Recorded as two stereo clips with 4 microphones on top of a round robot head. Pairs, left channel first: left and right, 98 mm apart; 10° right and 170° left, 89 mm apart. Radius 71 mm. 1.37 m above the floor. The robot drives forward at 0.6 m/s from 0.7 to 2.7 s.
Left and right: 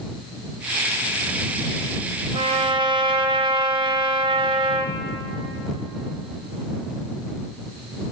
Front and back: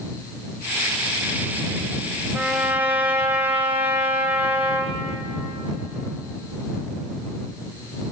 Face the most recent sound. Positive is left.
turn(degrees=-120)